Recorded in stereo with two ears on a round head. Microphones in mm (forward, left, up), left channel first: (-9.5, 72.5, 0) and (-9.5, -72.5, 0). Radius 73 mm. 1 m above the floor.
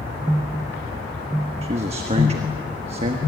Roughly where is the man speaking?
Right.